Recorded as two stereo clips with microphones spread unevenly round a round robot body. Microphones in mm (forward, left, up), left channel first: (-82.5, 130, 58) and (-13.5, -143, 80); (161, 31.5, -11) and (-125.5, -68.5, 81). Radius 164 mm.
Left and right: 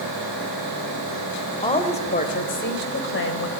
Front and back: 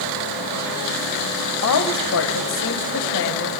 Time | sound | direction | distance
1.6 | a woman speaking | 35° left | 2.0 m